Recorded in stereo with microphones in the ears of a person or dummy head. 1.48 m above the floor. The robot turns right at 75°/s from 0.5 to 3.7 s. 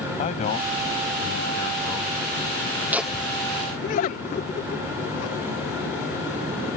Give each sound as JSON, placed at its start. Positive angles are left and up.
{"t": 0.2, "sound": "a man speaking", "azimuth_deg": 40}
{"t": 2.9, "sound": "laughter", "side_deg": -10}